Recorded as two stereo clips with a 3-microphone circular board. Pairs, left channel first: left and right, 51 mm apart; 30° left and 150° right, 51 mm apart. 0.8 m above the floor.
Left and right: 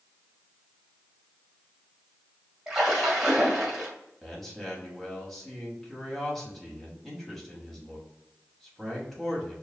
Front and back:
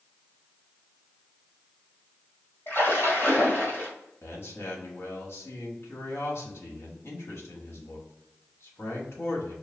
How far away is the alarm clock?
I don't hear an alarm clock.